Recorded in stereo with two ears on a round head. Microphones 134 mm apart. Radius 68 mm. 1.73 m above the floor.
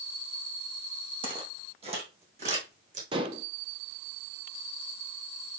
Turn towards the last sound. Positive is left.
turn(degrees=-30)  # may be behind; listen again after turning